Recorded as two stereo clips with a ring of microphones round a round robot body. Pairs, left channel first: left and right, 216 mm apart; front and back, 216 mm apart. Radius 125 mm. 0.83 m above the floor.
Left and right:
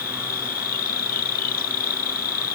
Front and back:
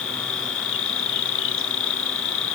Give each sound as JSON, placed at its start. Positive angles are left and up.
{"t": 0.0, "sound": "an insect", "azimuth_deg": 35}